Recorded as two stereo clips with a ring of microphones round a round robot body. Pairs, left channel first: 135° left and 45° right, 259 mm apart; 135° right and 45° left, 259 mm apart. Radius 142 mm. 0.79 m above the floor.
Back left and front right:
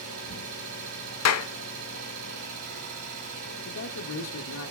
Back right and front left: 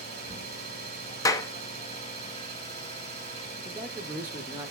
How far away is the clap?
About 0.7 m.